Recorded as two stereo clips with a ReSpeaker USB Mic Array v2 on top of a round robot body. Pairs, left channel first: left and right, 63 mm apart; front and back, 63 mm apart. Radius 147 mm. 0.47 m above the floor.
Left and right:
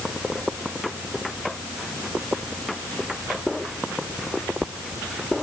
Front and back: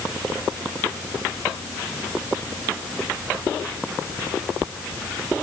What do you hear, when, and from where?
Only background noise.